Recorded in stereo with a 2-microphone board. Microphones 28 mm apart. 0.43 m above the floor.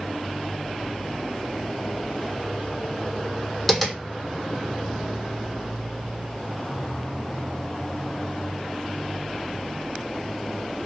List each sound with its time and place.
3.7 s tapping: 10° left (ahead or behind), 1.5 m